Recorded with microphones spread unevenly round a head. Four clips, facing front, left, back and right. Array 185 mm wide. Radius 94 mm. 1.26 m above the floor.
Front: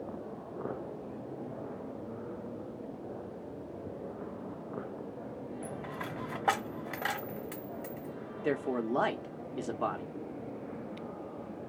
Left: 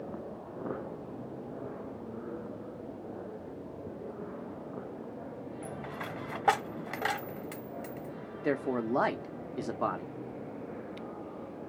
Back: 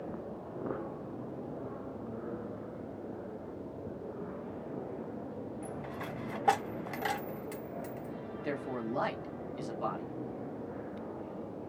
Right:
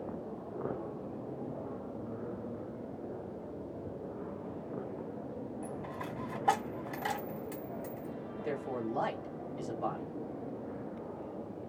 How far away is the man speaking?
About 0.8 m.